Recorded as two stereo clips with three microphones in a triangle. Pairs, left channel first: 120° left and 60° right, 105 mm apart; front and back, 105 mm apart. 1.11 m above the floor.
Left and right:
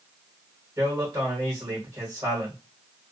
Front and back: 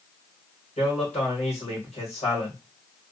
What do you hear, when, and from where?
0.8 s a man speaking: 5° left, 1.3 m